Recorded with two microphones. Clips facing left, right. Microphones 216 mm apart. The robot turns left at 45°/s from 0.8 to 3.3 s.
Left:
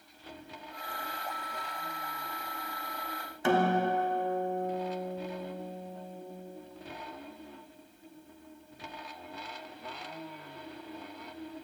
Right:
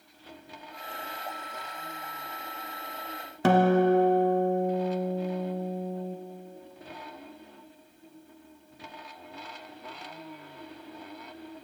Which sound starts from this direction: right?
A guitar, at 3.4 s.